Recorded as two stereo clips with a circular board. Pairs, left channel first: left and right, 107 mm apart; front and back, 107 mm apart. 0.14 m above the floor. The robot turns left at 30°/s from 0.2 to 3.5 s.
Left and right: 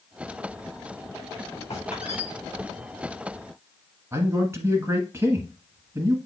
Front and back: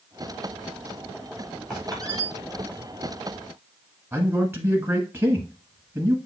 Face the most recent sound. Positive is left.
turn(degrees=-130)